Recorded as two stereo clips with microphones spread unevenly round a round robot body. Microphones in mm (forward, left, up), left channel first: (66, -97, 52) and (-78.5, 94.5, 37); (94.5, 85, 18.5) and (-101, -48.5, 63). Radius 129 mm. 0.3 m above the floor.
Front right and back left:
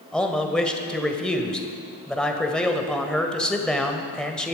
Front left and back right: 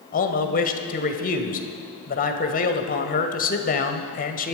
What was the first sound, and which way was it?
A man speaking, 35° left.